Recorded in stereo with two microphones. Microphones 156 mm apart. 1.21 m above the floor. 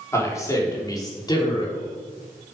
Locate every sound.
0.1 s a man speaking: 20° left (ahead or behind), 4 m; by 1.9 s 30° left (ahead or behind), 4 m